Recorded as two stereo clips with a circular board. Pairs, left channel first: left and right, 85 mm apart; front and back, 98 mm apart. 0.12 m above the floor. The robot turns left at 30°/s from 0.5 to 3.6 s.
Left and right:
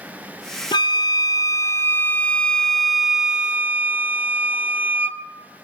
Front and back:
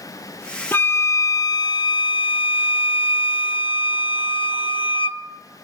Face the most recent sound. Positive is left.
turn(degrees=-20)